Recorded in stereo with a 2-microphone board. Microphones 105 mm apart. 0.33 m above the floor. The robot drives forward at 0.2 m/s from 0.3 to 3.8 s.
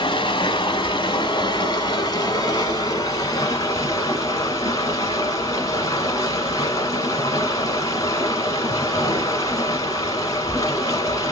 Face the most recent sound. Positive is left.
turn(degrees=35)  # may be behind; listen again after turning